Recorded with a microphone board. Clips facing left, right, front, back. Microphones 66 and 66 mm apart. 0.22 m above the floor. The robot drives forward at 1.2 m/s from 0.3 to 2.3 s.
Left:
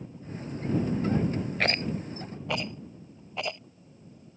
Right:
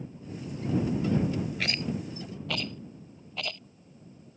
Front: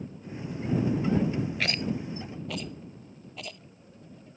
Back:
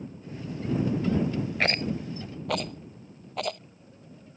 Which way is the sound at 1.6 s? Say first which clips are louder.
Left 3 dB, back 3 dB; 130° left.